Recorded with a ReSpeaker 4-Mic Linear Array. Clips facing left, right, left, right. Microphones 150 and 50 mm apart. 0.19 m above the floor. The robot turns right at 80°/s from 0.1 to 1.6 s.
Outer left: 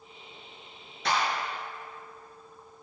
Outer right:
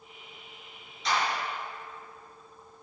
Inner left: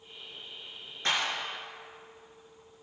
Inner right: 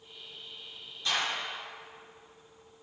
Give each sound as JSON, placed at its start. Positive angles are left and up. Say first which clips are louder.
{"t": 1.1, "sound": "a clap", "louder": "outer left 1 dB, inner left 1 dB", "side_deg": 60, "distance_m": 3.0}